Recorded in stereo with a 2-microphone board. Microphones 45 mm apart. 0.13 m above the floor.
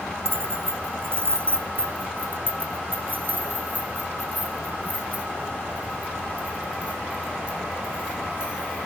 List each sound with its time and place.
0.2 s keys jangling: 60° right (ahead or behind), 2.0 m; by 8.9 s 20° right (ahead or behind), 7 m